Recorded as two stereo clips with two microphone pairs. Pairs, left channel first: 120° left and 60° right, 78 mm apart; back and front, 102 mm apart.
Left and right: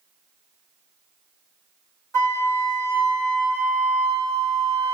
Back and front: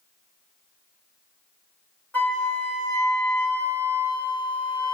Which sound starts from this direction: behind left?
A flute, at 2.1 s.